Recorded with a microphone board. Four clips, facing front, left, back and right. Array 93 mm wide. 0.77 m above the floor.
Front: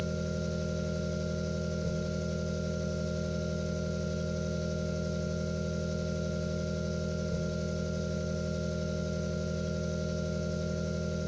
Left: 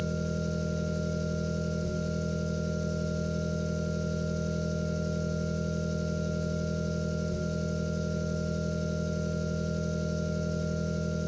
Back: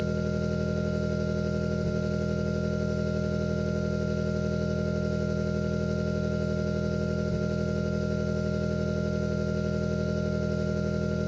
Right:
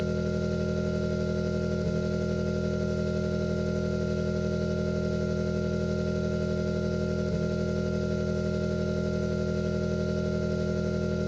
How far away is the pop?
No pop in this recording.